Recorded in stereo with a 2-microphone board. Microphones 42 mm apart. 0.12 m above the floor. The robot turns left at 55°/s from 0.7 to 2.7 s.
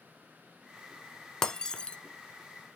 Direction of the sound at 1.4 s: 10° left (ahead or behind).